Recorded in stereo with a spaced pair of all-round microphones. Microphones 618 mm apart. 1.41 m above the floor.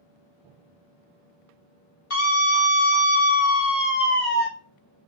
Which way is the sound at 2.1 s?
55° left (ahead or behind).